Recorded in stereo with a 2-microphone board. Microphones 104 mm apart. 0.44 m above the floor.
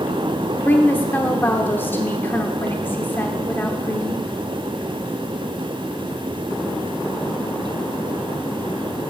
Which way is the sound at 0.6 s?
20° left (ahead or behind).